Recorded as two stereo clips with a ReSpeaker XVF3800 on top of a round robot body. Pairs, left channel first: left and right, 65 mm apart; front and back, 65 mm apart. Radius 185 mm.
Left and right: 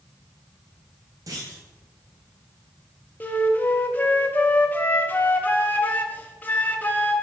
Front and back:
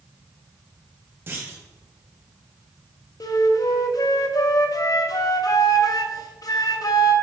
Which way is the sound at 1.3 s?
125° right.